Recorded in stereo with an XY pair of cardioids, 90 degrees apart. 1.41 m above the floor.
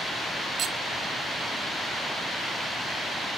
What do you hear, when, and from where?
0.6 s cutlery clinking: 70° right